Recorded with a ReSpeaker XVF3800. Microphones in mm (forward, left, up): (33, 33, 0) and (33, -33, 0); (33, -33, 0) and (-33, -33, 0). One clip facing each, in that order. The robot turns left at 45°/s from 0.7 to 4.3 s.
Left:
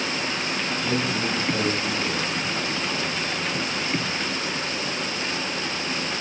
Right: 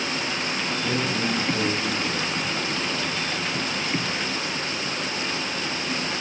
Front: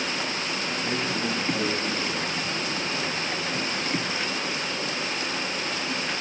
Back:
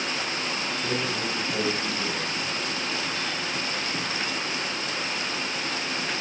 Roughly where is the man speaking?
Behind left.